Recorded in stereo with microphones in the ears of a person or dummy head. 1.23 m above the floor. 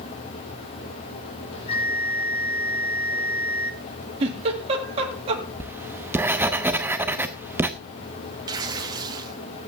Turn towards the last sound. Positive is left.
turn(degrees=-15)  # may be behind; listen again after turning